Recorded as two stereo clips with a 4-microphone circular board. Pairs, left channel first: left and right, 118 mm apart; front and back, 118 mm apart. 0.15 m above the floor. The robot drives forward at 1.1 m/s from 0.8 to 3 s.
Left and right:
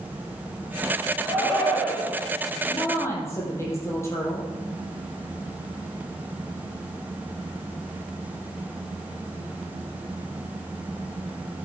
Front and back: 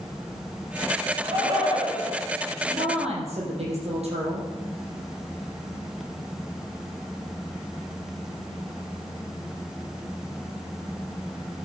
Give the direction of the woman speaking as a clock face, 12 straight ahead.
7 o'clock.